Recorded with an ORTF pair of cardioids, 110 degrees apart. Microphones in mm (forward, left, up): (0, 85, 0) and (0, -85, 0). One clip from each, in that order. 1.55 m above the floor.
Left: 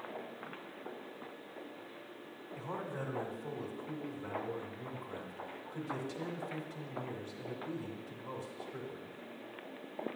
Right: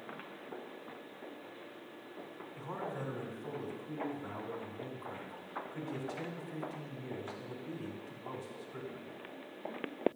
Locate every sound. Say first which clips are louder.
2.5 s a man speaking: even; 10° left, 1.8 m